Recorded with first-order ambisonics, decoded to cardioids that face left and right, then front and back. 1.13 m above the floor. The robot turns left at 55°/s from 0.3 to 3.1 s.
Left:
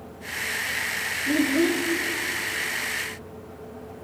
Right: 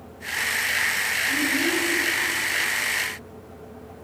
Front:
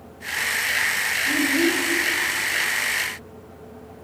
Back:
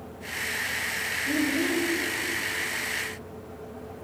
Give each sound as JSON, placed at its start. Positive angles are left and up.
{"t": 1.3, "sound": "a child speaking", "azimuth_deg": 95, "distance_m": 1.7}